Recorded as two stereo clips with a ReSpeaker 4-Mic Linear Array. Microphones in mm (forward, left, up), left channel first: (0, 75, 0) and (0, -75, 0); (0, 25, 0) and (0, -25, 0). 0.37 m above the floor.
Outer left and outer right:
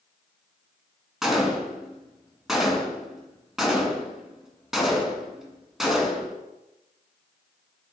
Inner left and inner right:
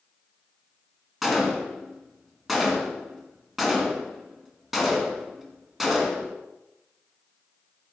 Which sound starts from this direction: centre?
A gunshot, at 1.2 s.